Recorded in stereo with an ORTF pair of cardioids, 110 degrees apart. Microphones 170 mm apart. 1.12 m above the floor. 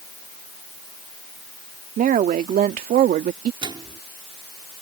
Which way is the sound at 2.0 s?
55° right.